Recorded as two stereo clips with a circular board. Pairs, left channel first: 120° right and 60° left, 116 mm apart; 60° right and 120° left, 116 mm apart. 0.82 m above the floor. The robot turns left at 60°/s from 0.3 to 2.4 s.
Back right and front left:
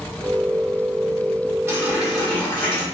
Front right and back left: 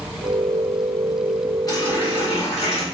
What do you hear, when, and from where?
1.7 s a running tap: 5° right, 1.6 m; by 2.9 s 50° right, 1.6 m